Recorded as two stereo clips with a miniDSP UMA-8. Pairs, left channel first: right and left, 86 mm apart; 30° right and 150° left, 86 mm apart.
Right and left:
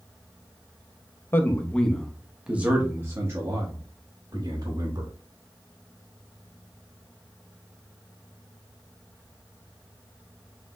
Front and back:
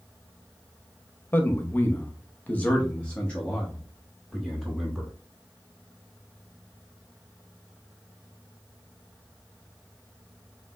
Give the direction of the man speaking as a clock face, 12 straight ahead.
2 o'clock.